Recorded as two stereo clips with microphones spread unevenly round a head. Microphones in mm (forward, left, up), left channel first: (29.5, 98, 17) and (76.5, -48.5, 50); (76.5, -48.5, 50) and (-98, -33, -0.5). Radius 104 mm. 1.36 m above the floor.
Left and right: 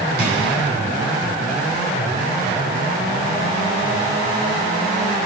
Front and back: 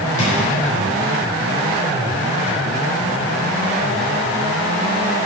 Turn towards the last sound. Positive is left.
turn(degrees=-55)